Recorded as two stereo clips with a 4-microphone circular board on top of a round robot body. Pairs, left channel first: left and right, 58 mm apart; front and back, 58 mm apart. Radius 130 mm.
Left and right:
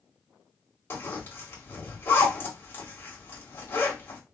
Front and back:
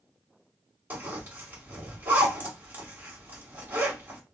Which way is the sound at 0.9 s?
125° left.